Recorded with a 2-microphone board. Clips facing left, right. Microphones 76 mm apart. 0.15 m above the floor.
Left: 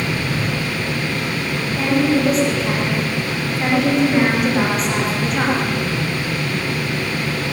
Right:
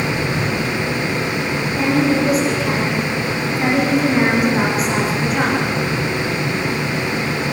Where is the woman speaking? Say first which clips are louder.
Even; centre (ahead or behind), 9 m.